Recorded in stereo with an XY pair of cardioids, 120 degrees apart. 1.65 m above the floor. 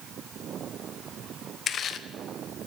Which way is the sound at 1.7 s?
50° left.